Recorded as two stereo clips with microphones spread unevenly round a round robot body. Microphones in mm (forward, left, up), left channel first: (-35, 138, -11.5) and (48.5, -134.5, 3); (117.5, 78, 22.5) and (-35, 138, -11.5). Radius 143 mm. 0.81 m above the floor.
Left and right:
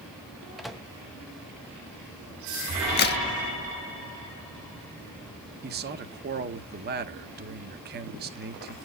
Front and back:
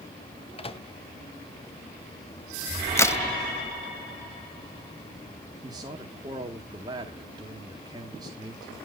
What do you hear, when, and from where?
0.6 s a microwave: 20° left, 0.8 m
3.0 s a crack: 60° left, 1.0 m
5.6 s a man speaking: 130° right, 1.0 m